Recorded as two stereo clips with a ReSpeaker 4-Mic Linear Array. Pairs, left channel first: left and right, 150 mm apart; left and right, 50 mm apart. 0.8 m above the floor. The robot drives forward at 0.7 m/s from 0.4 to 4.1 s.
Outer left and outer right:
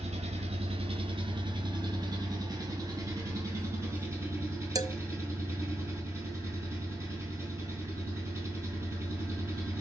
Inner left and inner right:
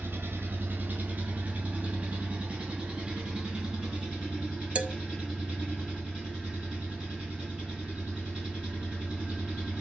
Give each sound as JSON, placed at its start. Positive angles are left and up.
{"t": 0.0, "sound": "an engine running", "side_deg": -50, "distance_m": 1.8}
{"t": 4.8, "sound": "a man speaking", "side_deg": -25, "distance_m": 1.1}